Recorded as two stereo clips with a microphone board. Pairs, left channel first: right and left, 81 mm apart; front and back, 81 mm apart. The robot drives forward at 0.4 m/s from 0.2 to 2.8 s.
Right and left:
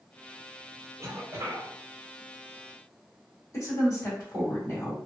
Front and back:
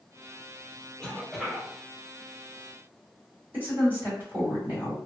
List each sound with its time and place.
1.0 s a cough: 75° left, 0.9 m; by 1.7 s 105° left, 0.9 m
3.5 s a woman speaking: 125° right, 1.6 m